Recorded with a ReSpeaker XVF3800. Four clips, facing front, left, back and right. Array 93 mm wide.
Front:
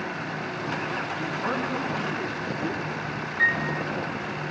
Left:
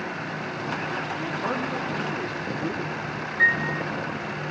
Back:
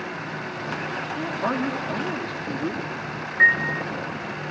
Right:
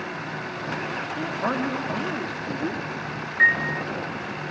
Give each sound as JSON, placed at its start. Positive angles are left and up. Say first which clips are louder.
{"t": 1.2, "sound": "a man speaking", "louder": "right 5 dB, back 5 dB", "azimuth_deg": -120, "distance_m": 10.0}
{"t": 3.4, "sound": "a piano", "louder": "right 2 dB, back 6 dB", "azimuth_deg": -150, "distance_m": 0.6}